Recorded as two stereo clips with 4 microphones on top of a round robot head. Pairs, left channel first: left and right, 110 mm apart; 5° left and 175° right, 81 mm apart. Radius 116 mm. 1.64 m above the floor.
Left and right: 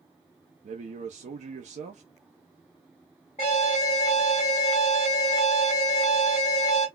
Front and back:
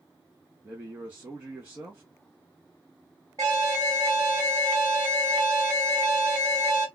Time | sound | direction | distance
0.6 | a man speaking | 100° right | 0.6 m
3.4 | an alarm | 140° left | 1.3 m